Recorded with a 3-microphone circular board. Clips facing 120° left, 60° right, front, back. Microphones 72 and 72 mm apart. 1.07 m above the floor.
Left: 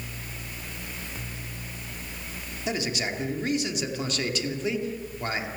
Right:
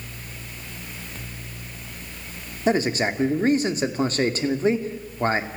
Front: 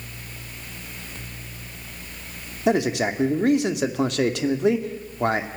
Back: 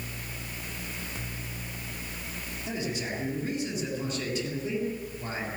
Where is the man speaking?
10° right, 2 m.